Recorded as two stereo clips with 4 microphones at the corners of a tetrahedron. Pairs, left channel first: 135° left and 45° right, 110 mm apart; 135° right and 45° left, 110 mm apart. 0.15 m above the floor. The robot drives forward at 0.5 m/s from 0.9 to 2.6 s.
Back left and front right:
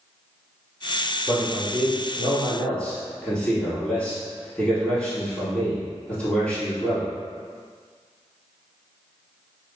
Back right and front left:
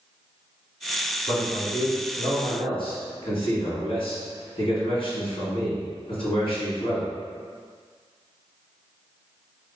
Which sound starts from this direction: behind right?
A man speaking, at 1.3 s.